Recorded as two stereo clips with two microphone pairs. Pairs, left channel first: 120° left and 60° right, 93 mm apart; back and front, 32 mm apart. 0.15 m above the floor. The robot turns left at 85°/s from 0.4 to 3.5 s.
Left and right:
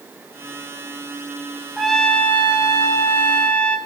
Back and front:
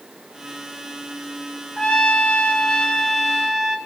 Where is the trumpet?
145° right, 1.5 m; by 3.8 s 65° left, 1.5 m.